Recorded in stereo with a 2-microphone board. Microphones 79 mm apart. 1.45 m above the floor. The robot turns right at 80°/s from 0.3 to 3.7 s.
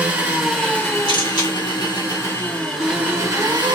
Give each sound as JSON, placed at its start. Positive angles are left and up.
{"t": 0.0, "sound": "an engine running", "azimuth_deg": -15, "distance_m": 1.2}
{"t": 1.1, "sound": "a camera shutter", "azimuth_deg": 90, "distance_m": 1.3}